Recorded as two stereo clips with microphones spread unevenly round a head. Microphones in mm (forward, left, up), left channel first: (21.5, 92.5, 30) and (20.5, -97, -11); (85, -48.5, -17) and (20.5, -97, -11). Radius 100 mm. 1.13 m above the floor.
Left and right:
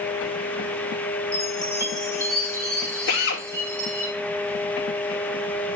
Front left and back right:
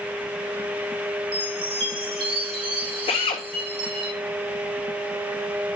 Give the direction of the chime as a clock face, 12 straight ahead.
6 o'clock.